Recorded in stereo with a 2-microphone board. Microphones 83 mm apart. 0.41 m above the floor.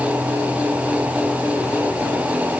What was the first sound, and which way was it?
Only background noise.